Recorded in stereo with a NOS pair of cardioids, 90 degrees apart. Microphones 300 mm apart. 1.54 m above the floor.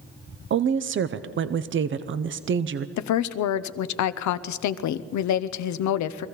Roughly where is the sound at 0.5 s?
Ahead right.